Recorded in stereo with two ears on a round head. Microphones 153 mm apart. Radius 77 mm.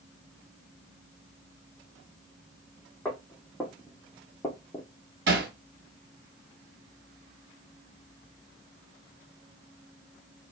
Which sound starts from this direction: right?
Hammering, at 5.3 s.